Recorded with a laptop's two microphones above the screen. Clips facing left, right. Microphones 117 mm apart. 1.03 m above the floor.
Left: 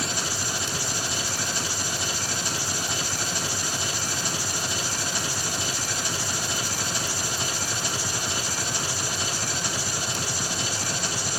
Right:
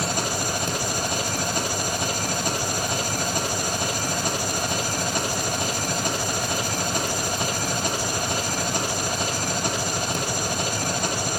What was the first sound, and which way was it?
An engine running, 55° right (ahead or behind).